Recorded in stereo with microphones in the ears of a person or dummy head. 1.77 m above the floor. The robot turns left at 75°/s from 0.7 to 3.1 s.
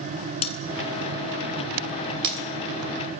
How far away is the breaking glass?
About 3 m.